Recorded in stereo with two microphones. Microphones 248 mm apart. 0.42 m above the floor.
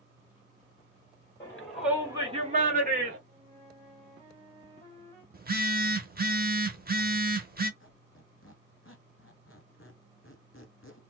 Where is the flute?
25° right (ahead or behind), 2 m.